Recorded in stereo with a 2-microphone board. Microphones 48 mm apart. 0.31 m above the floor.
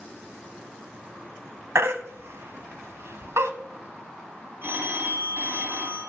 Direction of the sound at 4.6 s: 50° right (ahead or behind).